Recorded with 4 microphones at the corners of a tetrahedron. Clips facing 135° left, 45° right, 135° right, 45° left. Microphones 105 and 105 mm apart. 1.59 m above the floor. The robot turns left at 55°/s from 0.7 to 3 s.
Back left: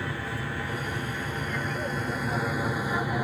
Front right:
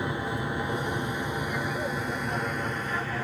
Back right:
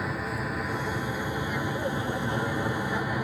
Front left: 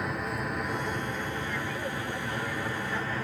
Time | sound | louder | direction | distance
0.0 | an aircraft | front right 3 dB, back right 1 dB | 50° right | ?